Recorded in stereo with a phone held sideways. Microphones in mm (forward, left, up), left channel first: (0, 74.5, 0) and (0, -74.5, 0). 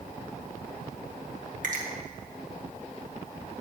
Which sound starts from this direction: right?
A finger snap, at 1.6 s.